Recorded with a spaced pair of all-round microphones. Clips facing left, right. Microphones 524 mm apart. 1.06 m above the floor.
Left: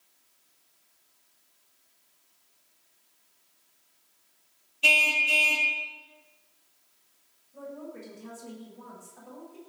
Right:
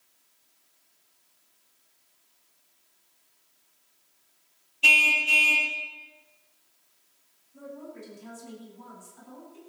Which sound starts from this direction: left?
A woman speaking, at 7.5 s.